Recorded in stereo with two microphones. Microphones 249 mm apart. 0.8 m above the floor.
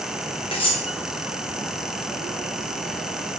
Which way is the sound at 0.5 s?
20° left (ahead or behind).